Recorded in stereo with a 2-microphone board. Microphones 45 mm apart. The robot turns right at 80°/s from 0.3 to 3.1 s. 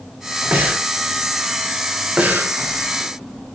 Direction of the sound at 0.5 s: 40° right (ahead or behind).